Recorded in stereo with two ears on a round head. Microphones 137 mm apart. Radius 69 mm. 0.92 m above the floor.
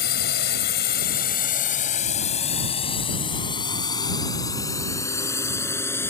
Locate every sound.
0.0 s a drone: 80° left; by 6.1 s 15° left (ahead or behind)